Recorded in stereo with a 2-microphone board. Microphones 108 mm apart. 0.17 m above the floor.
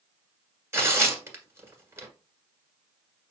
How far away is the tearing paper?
About 1.4 m.